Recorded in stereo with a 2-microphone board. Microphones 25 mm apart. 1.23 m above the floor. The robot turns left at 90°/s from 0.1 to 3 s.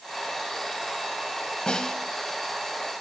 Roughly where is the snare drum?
Ahead left.